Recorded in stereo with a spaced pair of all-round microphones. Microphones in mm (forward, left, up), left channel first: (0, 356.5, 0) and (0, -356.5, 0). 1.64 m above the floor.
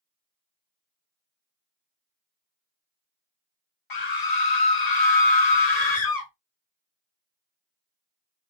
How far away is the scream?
About 1.0 m.